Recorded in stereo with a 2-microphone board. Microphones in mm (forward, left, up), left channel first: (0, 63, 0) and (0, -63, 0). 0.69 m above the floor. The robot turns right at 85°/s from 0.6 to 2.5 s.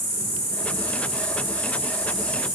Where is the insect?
90° left, 1.4 m; by 2.6 s 110° right, 1.4 m.